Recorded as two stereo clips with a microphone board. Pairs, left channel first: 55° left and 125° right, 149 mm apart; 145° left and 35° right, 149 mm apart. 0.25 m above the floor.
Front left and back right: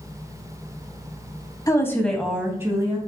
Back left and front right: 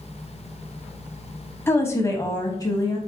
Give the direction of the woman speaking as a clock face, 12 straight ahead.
9 o'clock.